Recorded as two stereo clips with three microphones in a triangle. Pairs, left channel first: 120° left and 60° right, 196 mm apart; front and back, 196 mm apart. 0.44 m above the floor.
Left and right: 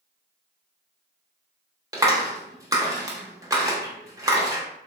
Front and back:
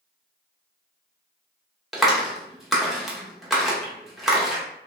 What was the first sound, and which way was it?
A clap, 90° right.